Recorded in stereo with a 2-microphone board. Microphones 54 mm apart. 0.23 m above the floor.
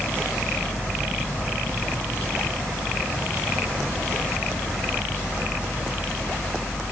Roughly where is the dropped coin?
No dropped coin in this recording.